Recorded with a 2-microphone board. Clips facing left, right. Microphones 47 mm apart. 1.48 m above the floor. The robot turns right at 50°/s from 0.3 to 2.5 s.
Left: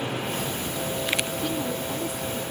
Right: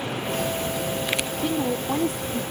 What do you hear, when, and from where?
1.4 s a woman speaking: 155° right; by 2.4 s 105° right